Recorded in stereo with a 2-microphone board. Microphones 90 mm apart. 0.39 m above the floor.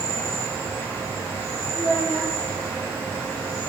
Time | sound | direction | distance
0.0 | an insect | 25° left (ahead or behind) | 1.4 m
1.7 | a child speaking | 30° right (ahead or behind) | 1.4 m